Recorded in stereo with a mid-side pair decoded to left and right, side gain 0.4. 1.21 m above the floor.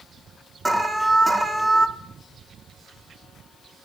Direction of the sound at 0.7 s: 20° right.